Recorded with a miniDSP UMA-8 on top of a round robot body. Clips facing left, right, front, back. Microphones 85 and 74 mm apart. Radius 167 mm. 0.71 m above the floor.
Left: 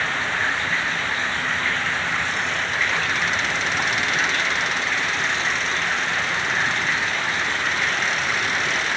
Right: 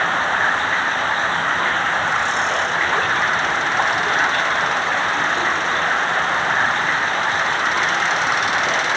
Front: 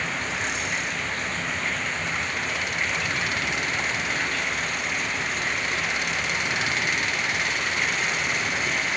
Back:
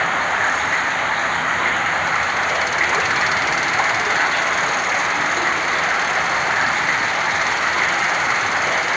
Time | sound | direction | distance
0.0 | running water | 140° right | ?